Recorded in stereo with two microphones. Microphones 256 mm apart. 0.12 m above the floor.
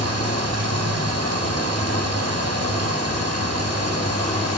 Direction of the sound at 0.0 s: 75° right (ahead or behind).